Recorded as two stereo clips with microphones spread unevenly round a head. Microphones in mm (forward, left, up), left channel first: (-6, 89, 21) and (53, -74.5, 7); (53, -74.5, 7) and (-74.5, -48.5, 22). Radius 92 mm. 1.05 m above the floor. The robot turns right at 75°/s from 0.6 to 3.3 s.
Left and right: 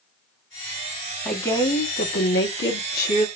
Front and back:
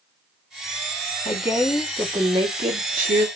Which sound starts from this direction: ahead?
A woman speaking, at 1.2 s.